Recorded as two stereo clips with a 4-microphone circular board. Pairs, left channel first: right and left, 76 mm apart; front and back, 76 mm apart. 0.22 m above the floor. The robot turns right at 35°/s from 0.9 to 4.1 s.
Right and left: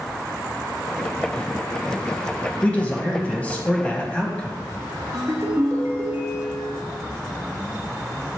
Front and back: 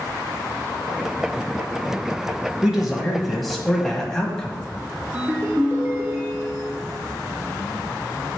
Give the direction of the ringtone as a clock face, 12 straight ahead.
8 o'clock.